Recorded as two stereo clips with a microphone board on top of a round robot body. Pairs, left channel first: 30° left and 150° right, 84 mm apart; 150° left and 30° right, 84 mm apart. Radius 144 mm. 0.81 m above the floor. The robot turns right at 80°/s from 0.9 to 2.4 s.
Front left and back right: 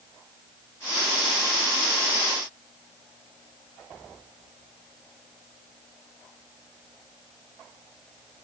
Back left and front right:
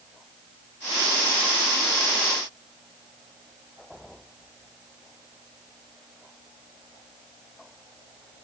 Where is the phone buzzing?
No phone buzzing in this recording.